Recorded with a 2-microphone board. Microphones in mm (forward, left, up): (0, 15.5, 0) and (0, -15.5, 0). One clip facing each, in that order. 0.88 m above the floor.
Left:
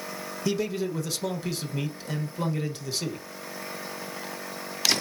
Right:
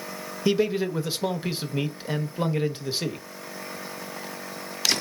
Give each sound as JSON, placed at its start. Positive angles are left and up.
{"t": 0.5, "sound": "a man speaking", "side_deg": -25, "distance_m": 0.8}